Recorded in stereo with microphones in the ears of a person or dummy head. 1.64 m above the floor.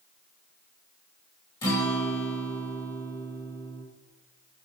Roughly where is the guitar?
Centre.